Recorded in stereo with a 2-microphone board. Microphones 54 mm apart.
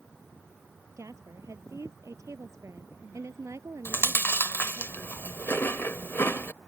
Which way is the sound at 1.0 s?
60° right (ahead or behind).